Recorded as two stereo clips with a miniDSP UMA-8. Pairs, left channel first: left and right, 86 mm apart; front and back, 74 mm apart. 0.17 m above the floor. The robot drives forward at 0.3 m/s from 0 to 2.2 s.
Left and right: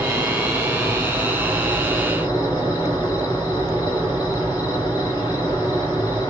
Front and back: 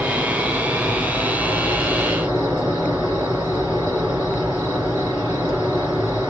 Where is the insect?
105° left, 1.7 m; by 6.3 s 130° left, 1.9 m.